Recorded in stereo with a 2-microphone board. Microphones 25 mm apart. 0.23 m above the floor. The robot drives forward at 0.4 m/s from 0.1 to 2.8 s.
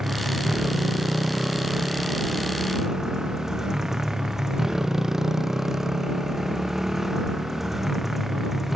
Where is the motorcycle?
25° right (ahead or behind); by 8.8 s 10° right (ahead or behind).